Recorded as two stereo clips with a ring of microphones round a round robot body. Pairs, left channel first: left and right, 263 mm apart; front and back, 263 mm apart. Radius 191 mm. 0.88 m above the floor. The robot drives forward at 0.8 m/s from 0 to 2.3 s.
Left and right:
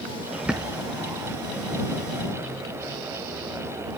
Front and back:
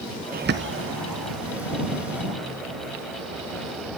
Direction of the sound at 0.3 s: 170° right.